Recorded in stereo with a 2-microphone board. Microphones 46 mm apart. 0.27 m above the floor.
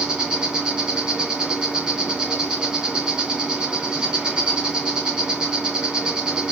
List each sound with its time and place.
0.0 s an insect: 20° right (ahead or behind), 2.5 m